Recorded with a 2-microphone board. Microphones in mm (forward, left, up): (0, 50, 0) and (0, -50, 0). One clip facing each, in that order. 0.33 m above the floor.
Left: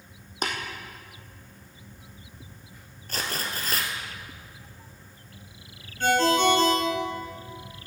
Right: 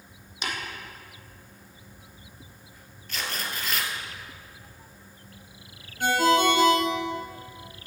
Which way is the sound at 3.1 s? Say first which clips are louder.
Left 2 dB; 45° left (ahead or behind).